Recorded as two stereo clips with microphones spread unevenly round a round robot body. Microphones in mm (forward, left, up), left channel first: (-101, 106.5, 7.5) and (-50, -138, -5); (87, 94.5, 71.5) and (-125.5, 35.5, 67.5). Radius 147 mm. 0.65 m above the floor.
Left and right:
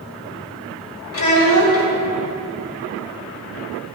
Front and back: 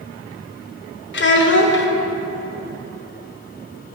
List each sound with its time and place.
1.1 s a child speaking: 55° left, 1.4 m